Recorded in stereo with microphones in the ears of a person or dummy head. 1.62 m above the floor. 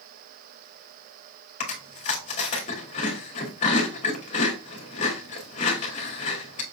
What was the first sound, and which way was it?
Chewing, 45° left (ahead or behind).